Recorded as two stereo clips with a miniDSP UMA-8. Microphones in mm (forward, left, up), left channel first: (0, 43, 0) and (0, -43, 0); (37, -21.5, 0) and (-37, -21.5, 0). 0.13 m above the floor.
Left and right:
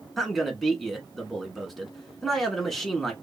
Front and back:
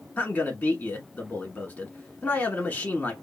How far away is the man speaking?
About 1.1 m.